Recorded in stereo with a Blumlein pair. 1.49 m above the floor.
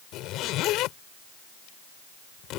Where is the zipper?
35° left.